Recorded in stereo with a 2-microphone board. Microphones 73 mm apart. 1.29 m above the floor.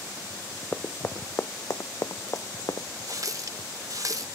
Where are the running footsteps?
25° left (ahead or behind); by 2.9 s 55° left (ahead or behind).